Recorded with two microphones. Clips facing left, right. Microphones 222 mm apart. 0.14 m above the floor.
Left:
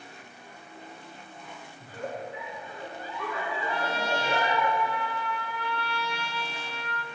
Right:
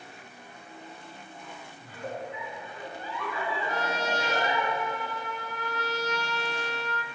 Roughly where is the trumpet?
Right.